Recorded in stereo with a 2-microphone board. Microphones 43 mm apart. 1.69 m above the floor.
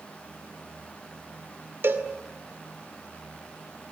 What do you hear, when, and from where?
1.8 s a cowbell: 60° right (ahead or behind), 2 m